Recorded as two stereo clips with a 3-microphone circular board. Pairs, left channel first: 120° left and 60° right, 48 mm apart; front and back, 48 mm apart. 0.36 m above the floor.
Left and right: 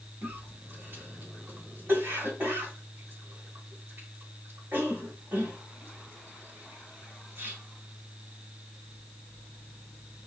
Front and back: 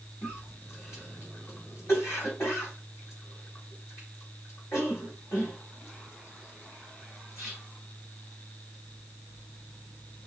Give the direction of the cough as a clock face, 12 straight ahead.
1 o'clock.